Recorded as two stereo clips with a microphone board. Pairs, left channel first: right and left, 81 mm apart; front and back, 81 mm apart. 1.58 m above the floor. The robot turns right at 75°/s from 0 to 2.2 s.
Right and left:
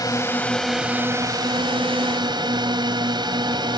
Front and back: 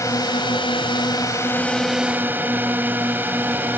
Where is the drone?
50° right; by 3.8 s 115° left.